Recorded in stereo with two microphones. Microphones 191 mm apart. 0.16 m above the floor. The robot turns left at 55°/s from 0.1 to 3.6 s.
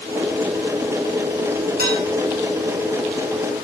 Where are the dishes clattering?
55° right (ahead or behind), 6 m; by 2.0 s 65° right (ahead or behind), 6 m.